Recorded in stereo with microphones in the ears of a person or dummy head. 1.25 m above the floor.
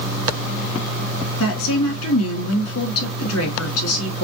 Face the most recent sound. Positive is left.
turn(degrees=75)  # may be behind; listen again after turning